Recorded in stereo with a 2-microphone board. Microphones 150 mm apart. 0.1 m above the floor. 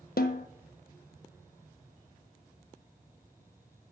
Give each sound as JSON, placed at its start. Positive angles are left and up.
{"t": 0.2, "sound": "a snare drum", "side_deg": 75, "distance_m": 0.7}